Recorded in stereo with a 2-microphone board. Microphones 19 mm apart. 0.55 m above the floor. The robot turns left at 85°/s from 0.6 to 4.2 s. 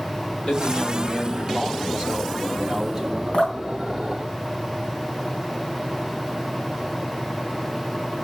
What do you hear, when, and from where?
0.5 s a man speaking: 40° left, 2.5 m; by 3.2 s 175° left, 2.5 m
3.3 s dripping: 80° left, 4 m; by 5.2 s 25° left (ahead or behind), 4 m